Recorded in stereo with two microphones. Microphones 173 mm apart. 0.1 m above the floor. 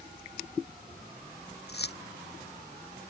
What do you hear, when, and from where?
1.7 s keys jangling: 75° left (ahead or behind)